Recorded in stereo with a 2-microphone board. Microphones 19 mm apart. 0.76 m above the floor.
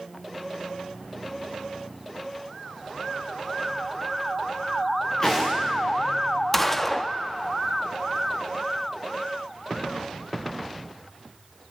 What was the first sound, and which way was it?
Footsteps, 25° left (ahead or behind).